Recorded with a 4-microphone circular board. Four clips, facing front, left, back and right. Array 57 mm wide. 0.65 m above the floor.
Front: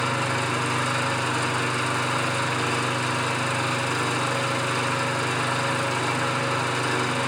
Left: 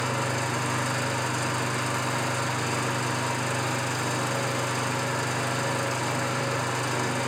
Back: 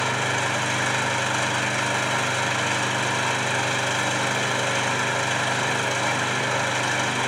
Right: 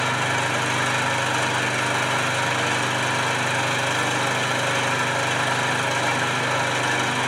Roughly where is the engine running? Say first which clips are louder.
Right 5 dB, back 1 dB; behind right.